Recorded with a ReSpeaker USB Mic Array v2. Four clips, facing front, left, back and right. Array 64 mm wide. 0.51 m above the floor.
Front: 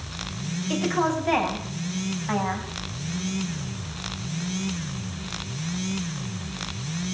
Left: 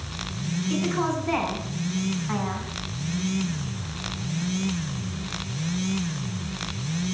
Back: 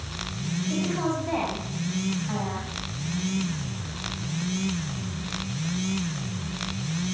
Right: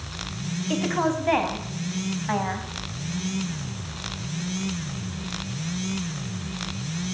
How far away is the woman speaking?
About 4 m.